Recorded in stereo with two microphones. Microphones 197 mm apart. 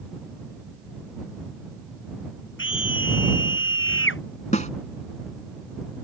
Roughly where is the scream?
Left.